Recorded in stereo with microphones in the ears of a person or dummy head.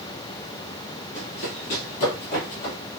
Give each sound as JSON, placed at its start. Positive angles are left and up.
{"t": 1.1, "sound": "running footsteps", "side_deg": 50, "distance_m": 2.5}